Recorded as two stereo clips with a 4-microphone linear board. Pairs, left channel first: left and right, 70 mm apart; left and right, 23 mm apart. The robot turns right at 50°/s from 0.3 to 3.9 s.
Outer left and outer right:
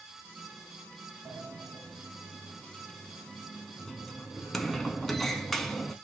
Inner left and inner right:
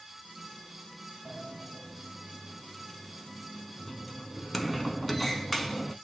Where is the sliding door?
50° right (ahead or behind), 0.6 m; by 6.0 s 5° left (ahead or behind), 0.6 m.